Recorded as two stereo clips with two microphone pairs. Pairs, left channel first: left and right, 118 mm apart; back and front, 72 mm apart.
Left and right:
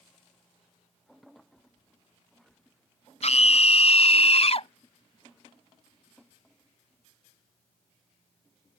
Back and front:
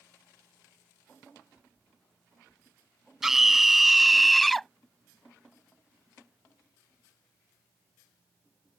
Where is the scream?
85° left; by 4.7 s 95° left.